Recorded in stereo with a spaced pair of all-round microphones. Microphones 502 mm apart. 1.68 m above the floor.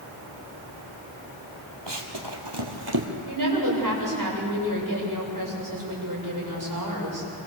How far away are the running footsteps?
About 3 m.